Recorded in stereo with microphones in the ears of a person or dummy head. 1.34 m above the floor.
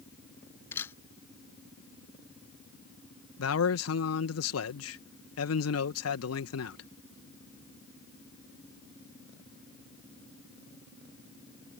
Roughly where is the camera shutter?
Centre.